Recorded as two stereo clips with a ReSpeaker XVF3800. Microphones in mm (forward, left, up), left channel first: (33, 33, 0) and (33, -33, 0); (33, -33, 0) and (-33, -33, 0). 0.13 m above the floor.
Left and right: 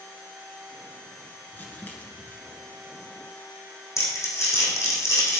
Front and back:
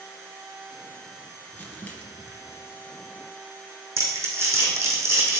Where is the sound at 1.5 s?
50° left, 1.6 m.